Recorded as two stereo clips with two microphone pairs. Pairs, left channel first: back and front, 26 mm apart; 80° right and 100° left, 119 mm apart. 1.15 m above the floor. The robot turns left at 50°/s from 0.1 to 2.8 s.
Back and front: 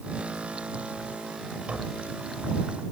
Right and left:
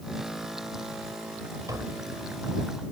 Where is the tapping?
40° left; by 2.1 s 20° left.